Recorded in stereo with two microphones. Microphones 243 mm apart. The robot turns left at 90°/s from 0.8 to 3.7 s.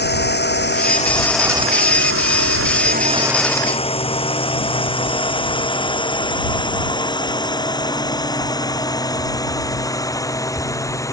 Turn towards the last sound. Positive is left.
turn(degrees=15)  # may be behind; listen again after turning